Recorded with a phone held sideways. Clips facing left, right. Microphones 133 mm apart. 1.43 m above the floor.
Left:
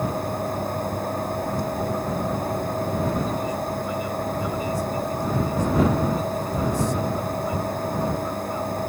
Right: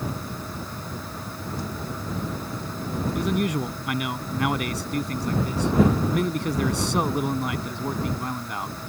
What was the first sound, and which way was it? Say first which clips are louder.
A fan: left 7 dB; 55° left (ahead or behind).